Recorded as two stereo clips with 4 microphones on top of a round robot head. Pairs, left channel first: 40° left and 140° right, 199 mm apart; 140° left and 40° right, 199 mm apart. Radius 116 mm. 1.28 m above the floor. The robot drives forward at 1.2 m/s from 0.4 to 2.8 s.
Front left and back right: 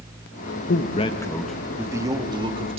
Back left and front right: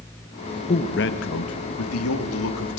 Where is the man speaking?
80° left, 1.0 m; by 2.8 s 155° left, 2.5 m.